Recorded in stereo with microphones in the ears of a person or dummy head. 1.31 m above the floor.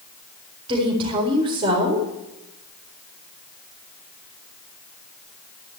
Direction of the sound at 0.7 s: 25° right (ahead or behind).